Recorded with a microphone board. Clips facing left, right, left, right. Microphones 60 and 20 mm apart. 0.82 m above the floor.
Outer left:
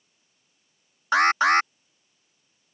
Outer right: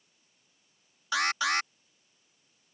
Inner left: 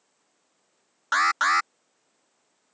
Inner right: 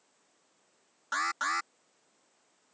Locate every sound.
1.1 s an alarm: 45° left (ahead or behind)